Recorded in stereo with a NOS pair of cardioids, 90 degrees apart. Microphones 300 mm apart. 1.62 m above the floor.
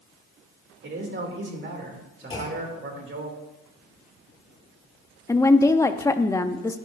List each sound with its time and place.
0.8 s a man speaking: 40° right, 2.5 m
2.3 s a clunk: 15° left, 4 m
5.3 s a woman speaking: 10° left, 0.7 m